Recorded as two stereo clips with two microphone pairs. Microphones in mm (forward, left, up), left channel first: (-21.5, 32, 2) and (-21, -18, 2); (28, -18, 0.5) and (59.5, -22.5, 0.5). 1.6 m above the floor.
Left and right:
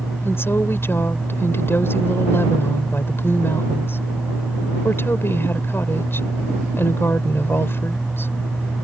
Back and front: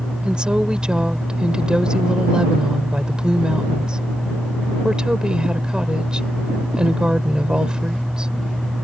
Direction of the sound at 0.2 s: 55° left.